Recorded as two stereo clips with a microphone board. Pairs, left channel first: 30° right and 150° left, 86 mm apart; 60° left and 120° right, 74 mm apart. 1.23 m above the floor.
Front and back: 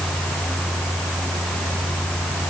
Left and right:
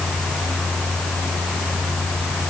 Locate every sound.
Only background noise.